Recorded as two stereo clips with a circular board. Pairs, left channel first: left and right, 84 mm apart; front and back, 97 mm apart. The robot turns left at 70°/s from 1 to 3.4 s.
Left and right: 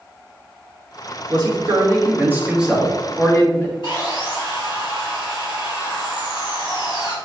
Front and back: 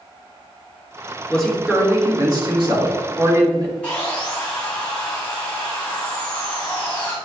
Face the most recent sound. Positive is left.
turn(degrees=75)